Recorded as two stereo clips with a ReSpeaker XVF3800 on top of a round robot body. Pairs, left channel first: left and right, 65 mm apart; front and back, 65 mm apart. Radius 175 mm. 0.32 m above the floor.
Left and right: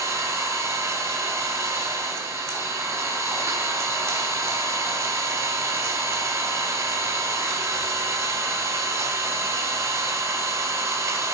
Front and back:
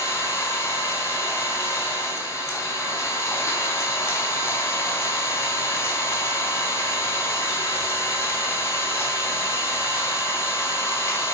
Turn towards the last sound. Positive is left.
turn(degrees=-50)